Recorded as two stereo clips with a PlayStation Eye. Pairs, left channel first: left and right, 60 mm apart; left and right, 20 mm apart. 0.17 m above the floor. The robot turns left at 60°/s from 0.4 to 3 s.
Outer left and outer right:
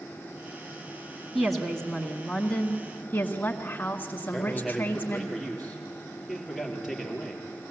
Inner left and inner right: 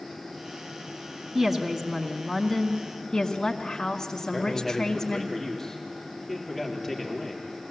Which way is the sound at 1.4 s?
170° right.